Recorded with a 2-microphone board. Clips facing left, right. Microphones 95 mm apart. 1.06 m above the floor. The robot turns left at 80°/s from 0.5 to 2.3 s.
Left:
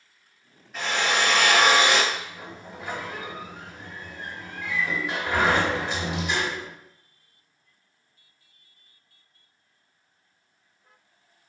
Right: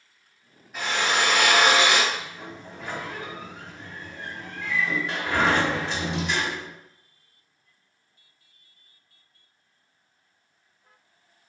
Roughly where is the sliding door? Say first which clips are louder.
Right 1 dB; centre.